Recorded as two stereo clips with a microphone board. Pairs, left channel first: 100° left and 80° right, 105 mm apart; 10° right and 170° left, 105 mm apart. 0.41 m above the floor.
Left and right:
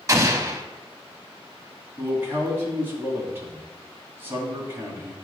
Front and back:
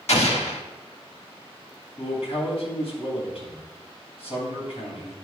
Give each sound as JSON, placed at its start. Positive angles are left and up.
{"t": 0.1, "sound": "an explosion", "azimuth_deg": -20, "distance_m": 0.7}
{"t": 2.0, "sound": "a man speaking", "azimuth_deg": -15, "distance_m": 2.5}